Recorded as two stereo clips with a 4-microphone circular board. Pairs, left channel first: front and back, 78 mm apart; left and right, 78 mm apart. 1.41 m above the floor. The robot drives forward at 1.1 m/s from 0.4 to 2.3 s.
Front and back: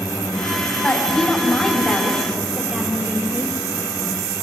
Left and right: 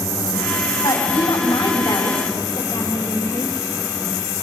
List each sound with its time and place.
0.8 s a woman speaking: 75° left, 4 m; by 3.5 s 100° left, 3.5 m